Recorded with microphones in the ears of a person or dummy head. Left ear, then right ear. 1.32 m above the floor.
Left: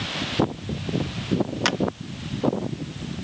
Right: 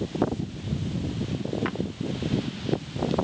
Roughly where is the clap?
Left.